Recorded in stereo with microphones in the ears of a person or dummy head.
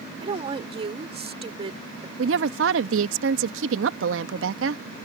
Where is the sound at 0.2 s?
35° right (ahead or behind).